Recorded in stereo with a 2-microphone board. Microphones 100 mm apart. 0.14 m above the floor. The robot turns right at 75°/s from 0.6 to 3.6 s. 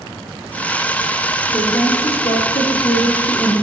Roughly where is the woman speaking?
Ahead left.